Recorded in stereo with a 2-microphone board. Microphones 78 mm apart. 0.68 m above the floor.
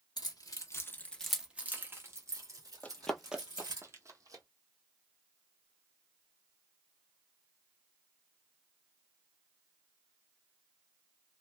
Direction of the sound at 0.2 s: 60° left (ahead or behind).